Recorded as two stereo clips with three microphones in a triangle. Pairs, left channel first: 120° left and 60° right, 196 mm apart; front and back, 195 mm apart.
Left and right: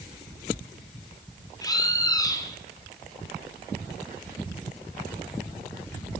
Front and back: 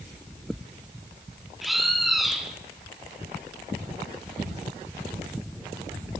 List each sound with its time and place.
1.6 s a bird: 90° left, 1.2 m